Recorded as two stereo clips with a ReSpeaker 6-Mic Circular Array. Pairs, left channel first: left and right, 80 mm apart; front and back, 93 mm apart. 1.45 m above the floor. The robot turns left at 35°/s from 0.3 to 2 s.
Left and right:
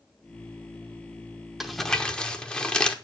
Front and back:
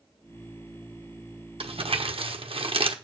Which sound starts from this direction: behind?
Crumpling, at 1.6 s.